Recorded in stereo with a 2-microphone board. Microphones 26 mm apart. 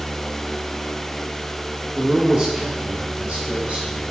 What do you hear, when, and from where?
1.9 s a man speaking: 15° right (ahead or behind), 0.8 m; by 4.0 s 45° right (ahead or behind), 2.0 m